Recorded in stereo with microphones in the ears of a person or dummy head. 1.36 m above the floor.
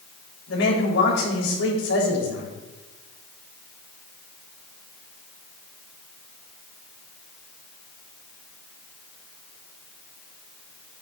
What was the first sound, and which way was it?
A man speaking, 80° left.